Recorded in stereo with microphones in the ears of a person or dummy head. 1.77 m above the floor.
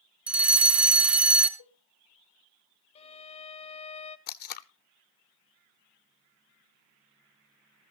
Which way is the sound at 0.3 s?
5° right (ahead or behind).